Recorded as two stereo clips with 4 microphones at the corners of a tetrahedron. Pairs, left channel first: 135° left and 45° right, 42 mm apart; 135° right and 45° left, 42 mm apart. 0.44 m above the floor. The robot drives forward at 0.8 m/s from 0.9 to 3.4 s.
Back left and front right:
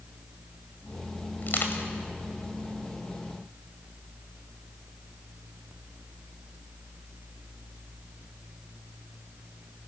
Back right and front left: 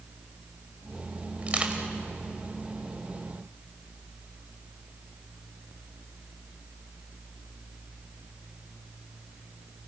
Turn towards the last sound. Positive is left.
turn(degrees=135)